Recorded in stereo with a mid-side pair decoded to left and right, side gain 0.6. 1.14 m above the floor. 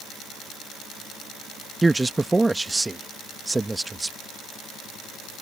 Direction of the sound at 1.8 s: 10° right.